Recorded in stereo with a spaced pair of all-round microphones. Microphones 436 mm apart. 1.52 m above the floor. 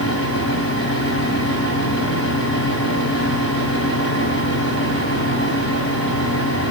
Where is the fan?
30° left (ahead or behind), 2.5 m.